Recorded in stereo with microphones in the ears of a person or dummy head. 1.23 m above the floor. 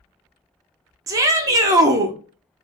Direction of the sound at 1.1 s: 20° right (ahead or behind).